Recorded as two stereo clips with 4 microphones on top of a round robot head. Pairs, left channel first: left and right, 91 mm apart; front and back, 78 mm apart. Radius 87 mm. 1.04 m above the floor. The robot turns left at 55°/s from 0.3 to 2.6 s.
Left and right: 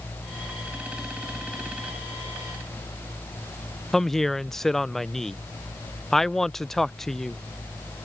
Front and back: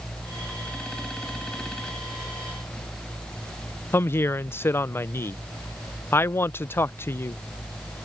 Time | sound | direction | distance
3.9 | a woman speaking | 10° left | ?